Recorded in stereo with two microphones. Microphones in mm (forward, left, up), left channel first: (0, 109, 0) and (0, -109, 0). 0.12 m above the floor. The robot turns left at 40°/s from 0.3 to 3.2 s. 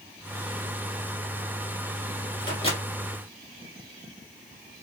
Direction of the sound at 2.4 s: 20° left (ahead or behind).